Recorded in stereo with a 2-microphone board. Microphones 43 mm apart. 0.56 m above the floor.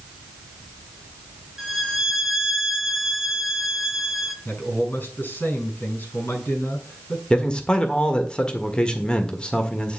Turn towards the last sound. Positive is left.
turn(degrees=25)  # may be behind; listen again after turning